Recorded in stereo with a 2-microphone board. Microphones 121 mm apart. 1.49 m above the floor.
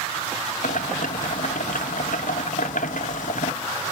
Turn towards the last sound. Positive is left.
turn(degrees=90)